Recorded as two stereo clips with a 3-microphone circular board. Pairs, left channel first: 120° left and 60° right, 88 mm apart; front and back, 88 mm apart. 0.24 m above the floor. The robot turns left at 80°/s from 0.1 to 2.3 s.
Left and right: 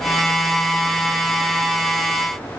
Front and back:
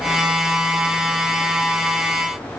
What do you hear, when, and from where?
Only background noise.